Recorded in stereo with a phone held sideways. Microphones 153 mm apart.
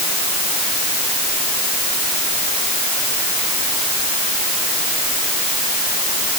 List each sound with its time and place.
Only background noise.